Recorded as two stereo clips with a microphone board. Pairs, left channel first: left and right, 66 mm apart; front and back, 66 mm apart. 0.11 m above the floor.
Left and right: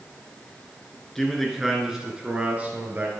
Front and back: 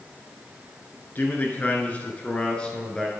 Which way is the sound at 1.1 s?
10° left.